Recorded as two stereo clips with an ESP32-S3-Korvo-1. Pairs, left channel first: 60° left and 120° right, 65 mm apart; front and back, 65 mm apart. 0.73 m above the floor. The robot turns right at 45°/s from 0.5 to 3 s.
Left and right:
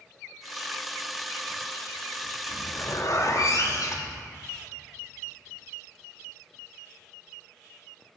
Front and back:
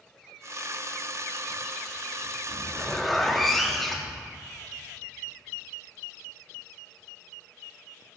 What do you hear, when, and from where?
2.5 s a zipper: 65° left, 0.8 m; by 4.2 s 90° left, 0.8 m